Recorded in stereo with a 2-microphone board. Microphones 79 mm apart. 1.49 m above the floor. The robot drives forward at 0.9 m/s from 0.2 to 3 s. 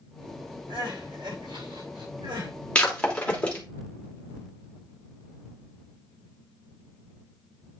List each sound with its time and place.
0.7 s crying: 70° right (ahead or behind), 6 m; by 2.5 s 85° right, 5.5 m
2.8 s breaking glass: 15° left (ahead or behind), 2.5 m